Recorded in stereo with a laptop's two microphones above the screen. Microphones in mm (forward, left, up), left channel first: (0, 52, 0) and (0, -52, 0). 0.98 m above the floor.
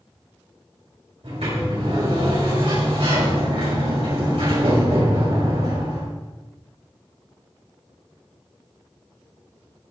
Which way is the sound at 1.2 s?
75° right (ahead or behind).